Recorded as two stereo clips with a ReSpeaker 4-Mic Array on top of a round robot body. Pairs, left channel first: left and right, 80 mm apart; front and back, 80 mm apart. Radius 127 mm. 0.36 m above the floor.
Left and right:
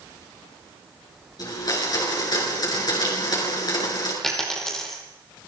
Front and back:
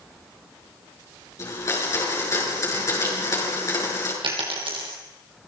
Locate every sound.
1.4 s a blender: 50° left, 6.5 m
4.2 s a dropped coin: 175° left, 5 m